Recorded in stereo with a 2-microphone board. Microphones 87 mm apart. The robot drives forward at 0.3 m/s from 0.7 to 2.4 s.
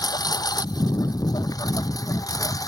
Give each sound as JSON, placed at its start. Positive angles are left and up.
{"t": 0.0, "sound": "a lawn mower", "side_deg": 55}